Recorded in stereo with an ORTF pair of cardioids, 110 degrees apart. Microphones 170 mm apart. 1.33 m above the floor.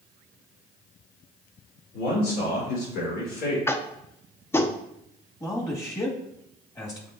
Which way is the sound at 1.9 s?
65° left.